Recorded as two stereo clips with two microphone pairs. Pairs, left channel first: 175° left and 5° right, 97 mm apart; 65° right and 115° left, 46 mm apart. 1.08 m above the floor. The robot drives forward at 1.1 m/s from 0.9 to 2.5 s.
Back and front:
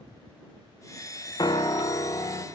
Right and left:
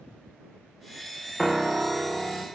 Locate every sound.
1.4 s a piano: 155° right, 0.6 m; by 2.4 s 170° right, 1.7 m